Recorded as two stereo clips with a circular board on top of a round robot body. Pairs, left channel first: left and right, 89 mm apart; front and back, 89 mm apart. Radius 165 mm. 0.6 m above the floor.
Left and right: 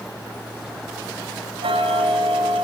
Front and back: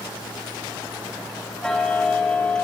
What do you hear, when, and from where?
1.6 s ticking: 80° right, 5.5 m